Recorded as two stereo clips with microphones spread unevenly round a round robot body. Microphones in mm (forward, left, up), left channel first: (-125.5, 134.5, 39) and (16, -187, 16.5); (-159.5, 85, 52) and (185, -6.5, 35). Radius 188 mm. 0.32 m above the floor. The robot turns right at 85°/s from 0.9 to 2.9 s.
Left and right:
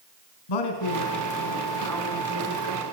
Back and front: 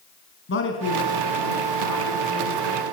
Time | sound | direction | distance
0.5 | a man speaking | 110° left | 4.5 m